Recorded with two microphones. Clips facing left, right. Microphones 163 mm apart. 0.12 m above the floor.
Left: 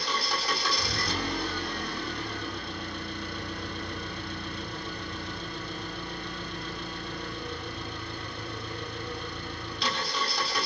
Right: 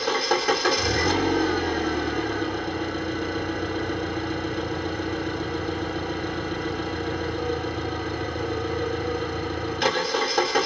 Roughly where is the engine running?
Right.